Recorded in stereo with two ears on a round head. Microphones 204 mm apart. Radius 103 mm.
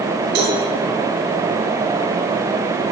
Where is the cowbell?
45° right (ahead or behind), 4.5 m.